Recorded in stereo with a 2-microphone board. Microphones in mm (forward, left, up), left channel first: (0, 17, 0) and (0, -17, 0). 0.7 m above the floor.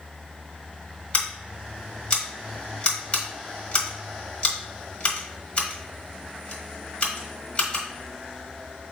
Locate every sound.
1.1 s scissors: 35° left (ahead or behind), 1.3 m